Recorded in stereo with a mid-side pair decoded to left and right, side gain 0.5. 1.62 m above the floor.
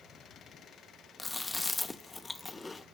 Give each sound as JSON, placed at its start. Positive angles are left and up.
{"t": 1.2, "sound": "chewing", "azimuth_deg": 15, "distance_m": 0.5}